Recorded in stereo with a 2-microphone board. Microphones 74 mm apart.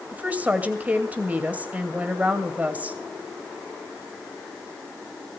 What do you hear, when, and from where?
0.1 s a woman speaking: 20° right (ahead or behind), 2.5 m